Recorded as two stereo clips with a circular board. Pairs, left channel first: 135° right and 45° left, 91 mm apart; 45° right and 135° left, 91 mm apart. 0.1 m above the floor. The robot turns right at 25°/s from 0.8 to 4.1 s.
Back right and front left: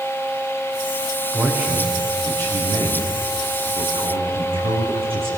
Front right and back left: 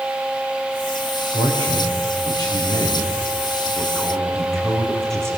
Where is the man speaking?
30° right, 8 m; by 5.3 s 40° left, 8 m.